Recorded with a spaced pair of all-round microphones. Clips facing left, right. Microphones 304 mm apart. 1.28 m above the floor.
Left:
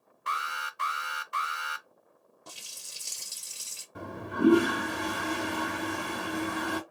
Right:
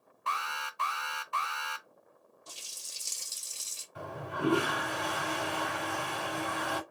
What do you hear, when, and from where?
0.3 s an alarm: 20° left (ahead or behind), 0.6 m
2.5 s a running tap: 70° left (ahead or behind), 0.9 m
4.0 s a toilet flushing: 55° left (ahead or behind), 2.0 m